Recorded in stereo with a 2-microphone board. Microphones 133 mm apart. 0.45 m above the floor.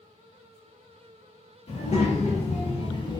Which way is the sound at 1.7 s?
50° left (ahead or behind).